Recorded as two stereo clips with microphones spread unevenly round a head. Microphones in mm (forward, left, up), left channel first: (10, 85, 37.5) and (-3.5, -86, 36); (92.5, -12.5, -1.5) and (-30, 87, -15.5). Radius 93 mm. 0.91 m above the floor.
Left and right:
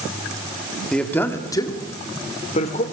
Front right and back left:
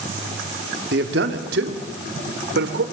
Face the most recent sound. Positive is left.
turn(degrees=135)